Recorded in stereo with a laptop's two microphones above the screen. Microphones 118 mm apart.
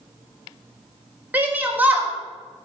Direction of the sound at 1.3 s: 15° right (ahead or behind).